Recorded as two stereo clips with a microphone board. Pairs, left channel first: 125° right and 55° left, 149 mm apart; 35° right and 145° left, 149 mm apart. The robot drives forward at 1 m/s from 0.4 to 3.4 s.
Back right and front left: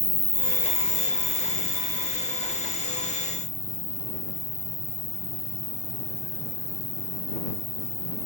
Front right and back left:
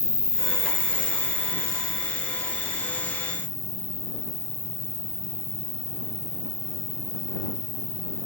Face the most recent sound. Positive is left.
turn(degrees=175)